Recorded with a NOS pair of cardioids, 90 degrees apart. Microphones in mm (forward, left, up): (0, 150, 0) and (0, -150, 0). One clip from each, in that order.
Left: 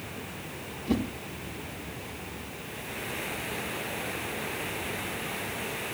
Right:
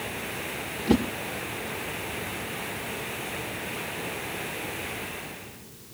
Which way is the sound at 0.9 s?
55° right.